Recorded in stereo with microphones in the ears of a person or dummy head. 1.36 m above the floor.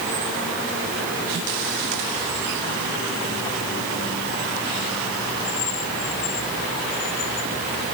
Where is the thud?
I don't hear a thud.